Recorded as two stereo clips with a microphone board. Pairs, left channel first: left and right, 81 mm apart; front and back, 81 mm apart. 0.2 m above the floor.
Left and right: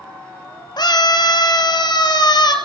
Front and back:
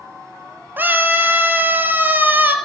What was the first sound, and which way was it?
A scream, 115° left.